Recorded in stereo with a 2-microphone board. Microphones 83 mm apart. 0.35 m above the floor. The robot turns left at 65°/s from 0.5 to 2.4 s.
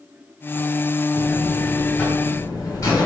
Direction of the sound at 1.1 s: 140° right.